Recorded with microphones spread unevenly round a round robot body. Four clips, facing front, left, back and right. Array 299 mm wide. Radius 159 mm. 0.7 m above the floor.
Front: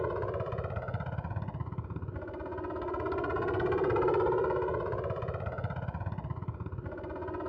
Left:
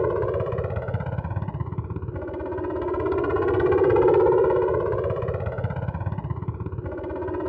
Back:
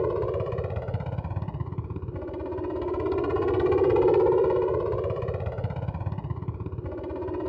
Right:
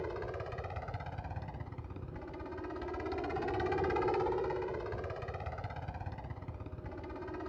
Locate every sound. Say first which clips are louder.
0.0 s a helicopter: left 17 dB, back 7 dB; 110° left